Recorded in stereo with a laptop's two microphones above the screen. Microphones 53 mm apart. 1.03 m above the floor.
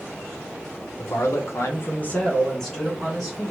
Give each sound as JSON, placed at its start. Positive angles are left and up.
{"t": 1.0, "sound": "a man speaking", "side_deg": 80, "distance_m": 0.7}